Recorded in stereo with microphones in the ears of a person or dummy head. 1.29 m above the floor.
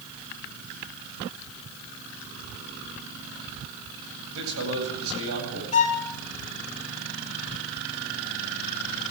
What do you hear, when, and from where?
4.3 s a man speaking: 85° right, 8.5 m
5.7 s a violin: 35° left (ahead or behind), 3 m